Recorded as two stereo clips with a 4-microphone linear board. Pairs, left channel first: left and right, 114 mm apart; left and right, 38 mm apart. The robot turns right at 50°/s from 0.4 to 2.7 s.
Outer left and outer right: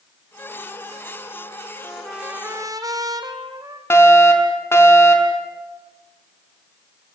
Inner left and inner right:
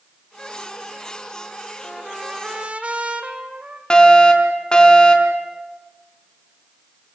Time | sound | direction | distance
1.8 | a trumpet | 170° left | 2 m
3.9 | a fire alarm | 20° left (ahead or behind) | 4 m